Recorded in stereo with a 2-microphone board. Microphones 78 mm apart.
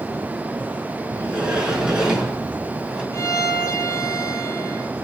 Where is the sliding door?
10° right (ahead or behind), 2.5 m.